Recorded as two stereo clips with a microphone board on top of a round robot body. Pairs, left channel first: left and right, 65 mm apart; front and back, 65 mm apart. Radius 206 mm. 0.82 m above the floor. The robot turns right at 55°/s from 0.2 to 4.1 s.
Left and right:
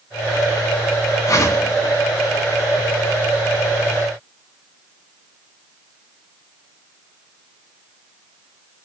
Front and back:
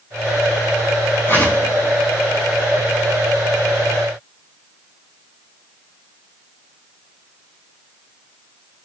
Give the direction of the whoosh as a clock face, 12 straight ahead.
10 o'clock.